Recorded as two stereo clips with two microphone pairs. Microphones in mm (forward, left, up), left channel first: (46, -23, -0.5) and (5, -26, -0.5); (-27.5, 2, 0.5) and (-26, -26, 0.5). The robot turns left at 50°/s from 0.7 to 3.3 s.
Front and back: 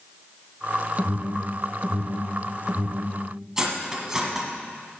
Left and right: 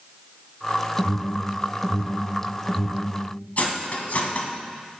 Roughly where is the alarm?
Right.